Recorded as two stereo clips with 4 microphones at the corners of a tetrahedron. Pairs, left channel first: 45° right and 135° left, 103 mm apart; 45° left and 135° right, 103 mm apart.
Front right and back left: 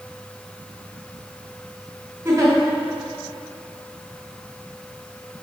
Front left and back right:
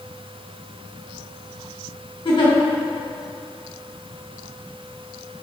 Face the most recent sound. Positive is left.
turn(degrees=80)